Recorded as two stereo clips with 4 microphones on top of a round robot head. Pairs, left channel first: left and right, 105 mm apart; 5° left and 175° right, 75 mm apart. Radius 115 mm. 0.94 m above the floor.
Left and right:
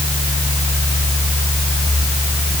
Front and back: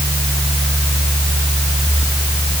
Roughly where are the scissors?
No scissors in this recording.